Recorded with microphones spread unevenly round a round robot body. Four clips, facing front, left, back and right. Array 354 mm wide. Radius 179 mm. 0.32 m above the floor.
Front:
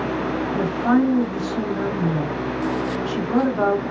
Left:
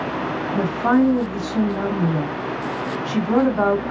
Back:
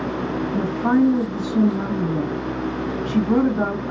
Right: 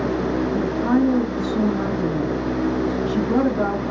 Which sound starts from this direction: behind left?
A woman speaking, at 0.5 s.